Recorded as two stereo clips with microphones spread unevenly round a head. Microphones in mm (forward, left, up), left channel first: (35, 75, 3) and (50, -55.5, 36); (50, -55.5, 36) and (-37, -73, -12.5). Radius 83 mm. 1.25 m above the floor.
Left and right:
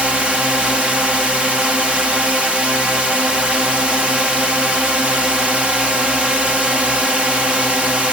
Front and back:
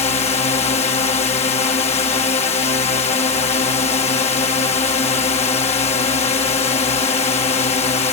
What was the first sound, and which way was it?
A drone, straight ahead.